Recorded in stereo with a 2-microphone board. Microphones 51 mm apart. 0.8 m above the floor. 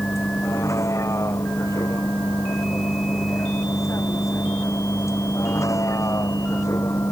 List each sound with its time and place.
0.0 s a vehicle: 90° left